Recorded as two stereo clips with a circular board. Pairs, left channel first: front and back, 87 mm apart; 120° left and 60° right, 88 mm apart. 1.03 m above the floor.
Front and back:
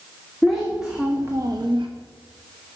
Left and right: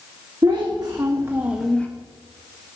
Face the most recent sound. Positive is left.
turn(degrees=-165)